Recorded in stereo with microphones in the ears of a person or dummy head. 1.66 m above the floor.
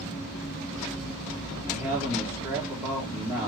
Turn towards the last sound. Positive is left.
turn(degrees=-5)  # may be behind; listen again after turning